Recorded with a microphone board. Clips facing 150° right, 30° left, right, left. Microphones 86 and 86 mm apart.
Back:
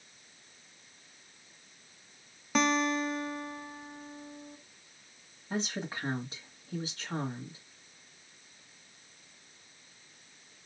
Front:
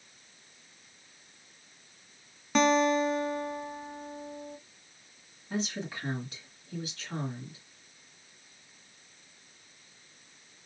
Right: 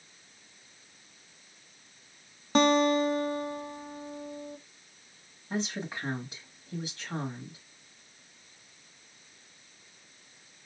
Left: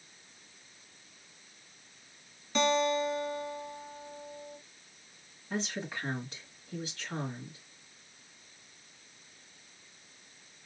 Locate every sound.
2.5 s a guitar: 60° right, 0.5 m
5.5 s a woman speaking: 145° right, 1.1 m